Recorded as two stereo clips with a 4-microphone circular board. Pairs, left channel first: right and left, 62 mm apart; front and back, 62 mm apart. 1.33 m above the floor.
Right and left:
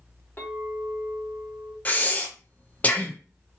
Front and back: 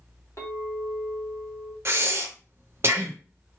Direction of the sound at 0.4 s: 40° right.